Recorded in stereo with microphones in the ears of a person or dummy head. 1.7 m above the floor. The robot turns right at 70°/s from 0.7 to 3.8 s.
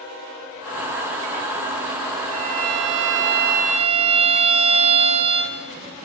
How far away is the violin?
About 1.4 m.